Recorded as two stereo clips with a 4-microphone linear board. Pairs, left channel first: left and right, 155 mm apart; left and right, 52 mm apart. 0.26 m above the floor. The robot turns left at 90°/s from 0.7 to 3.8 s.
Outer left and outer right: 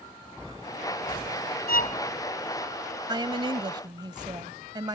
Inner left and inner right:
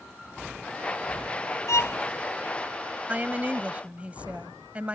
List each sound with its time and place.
1.7 s a violin: 75° left (ahead or behind); by 2.0 s 50° left (ahead or behind)
3.1 s a woman speaking: 60° right; by 5.0 s 125° right